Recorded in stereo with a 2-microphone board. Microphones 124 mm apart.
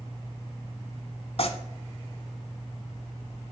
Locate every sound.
1.4 s tearing paper: 55° left (ahead or behind), 0.8 m